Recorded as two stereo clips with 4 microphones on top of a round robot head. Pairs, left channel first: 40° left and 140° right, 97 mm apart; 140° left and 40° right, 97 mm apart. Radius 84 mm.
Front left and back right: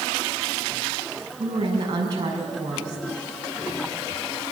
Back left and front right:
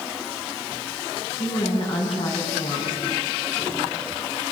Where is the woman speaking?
175° left, 6.5 m.